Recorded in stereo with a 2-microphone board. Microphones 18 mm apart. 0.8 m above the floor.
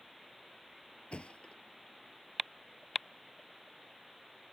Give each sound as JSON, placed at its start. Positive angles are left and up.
{"t": 1.1, "sound": "a thud", "side_deg": 80}